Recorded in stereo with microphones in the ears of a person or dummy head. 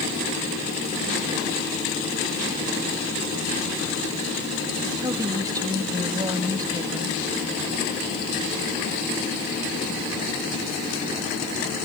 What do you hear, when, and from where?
5.0 s a woman speaking: 20° right (ahead or behind)